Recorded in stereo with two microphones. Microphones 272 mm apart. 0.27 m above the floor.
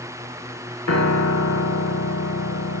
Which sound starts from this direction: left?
A piano, at 0.9 s.